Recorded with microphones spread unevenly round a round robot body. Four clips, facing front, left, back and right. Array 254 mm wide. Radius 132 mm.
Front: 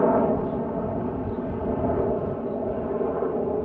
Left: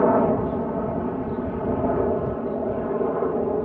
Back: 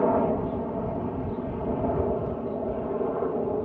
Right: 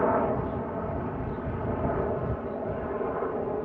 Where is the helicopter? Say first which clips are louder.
Left 6 dB, front 3 dB; 70° left; by 3.6 s 75° left.